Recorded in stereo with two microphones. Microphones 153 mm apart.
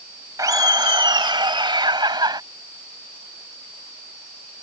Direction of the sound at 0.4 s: 25° right (ahead or behind).